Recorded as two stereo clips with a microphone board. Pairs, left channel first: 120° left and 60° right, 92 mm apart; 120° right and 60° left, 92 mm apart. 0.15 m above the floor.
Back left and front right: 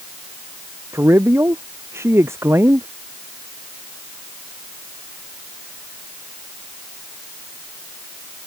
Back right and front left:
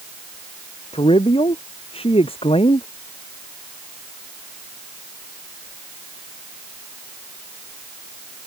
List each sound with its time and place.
0.9 s a man speaking: 120° right